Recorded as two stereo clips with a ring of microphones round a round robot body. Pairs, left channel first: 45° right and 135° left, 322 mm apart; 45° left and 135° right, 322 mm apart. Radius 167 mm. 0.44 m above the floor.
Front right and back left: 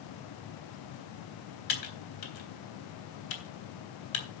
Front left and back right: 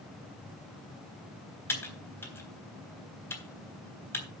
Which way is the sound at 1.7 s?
35° right.